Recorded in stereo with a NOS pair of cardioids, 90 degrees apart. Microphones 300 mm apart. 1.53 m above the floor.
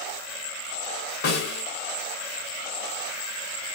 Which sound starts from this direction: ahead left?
A snare drum, at 1.2 s.